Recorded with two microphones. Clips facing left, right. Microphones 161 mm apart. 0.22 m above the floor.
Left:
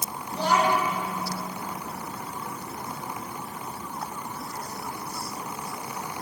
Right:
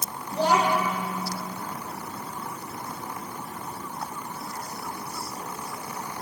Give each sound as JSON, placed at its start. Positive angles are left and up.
{"t": 0.3, "sound": "a child speaking", "side_deg": -35, "distance_m": 6.0}